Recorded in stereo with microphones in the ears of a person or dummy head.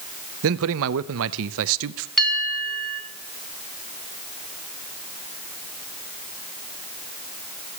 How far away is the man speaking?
About 0.7 m.